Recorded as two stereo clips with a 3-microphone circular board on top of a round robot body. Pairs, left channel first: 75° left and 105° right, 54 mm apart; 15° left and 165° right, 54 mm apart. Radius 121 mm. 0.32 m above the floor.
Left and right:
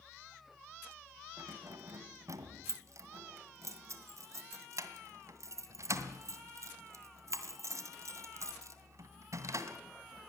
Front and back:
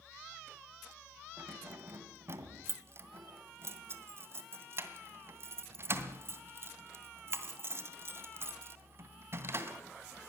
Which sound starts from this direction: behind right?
Keys jangling, at 1.4 s.